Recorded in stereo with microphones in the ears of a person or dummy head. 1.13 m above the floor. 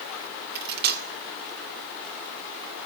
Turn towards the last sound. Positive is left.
turn(degrees=-55)  # may be behind; listen again after turning